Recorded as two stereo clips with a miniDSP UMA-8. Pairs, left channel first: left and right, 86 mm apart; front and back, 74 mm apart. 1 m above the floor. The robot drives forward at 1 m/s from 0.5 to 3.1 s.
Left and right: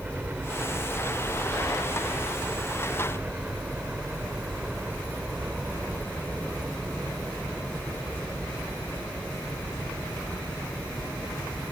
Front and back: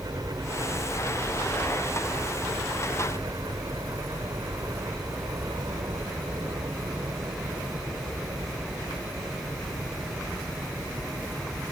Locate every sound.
0.0 s a helicopter: 160° right